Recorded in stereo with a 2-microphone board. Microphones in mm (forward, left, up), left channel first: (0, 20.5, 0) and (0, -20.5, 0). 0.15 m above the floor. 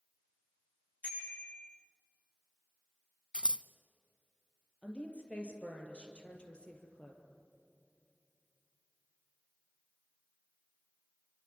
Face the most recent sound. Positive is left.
turn(degrees=30)  # may be behind; listen again after turning